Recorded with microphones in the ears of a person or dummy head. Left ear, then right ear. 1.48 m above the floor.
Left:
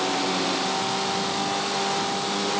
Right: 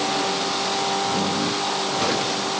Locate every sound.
Only background noise.